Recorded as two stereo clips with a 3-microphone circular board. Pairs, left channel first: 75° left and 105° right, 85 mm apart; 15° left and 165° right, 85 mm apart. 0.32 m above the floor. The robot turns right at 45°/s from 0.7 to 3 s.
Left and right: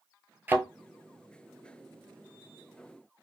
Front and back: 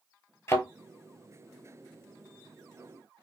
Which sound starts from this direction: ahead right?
A thud, at 0.5 s.